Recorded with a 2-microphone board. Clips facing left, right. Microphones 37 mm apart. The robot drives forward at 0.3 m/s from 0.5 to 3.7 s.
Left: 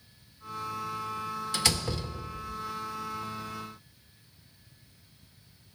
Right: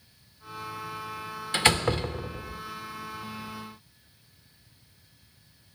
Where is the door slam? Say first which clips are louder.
Right 8 dB; 30° right (ahead or behind), 0.7 m; by 2.6 s 50° right (ahead or behind), 0.5 m.